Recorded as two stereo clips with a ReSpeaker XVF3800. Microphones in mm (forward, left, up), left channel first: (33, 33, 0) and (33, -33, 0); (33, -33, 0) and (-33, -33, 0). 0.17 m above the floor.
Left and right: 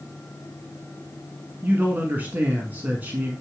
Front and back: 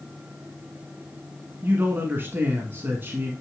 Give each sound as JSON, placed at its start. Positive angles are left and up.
{"t": 1.6, "sound": "a man speaking", "azimuth_deg": -140, "distance_m": 1.4}